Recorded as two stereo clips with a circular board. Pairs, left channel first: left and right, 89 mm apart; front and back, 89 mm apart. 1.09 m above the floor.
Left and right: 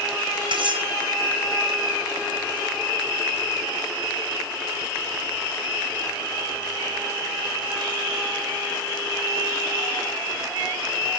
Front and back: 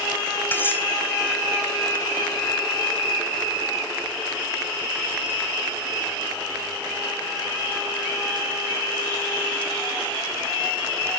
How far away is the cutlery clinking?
About 4 m.